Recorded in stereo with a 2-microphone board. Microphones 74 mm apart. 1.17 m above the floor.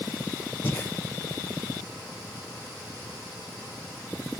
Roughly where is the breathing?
Left.